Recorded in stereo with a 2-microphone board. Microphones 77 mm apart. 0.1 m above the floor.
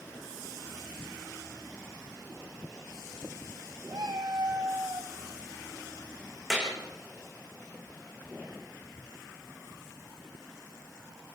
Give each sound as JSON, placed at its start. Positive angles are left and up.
{"t": 3.9, "sound": "a cat meowing", "side_deg": -55, "distance_m": 2.5}
{"t": 6.5, "sound": "a clap", "side_deg": 0, "distance_m": 6.5}